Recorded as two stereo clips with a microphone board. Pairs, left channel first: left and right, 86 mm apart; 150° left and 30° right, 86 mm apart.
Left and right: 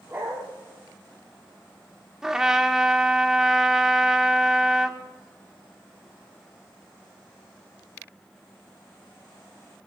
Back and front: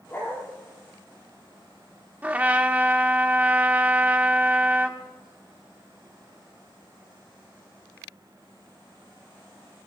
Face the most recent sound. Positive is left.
turn(degrees=-20)